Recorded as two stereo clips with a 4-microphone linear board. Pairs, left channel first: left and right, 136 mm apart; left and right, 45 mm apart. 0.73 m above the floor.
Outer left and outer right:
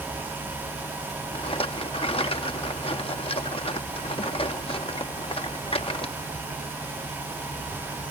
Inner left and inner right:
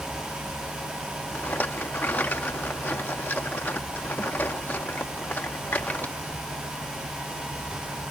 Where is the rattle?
45° left (ahead or behind).